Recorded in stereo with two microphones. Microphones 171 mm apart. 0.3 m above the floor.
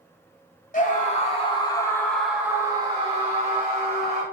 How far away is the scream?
About 1.2 m.